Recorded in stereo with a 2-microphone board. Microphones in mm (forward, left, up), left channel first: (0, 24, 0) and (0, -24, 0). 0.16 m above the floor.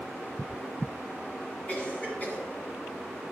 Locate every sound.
1.7 s a cough: 30° left (ahead or behind), 1.8 m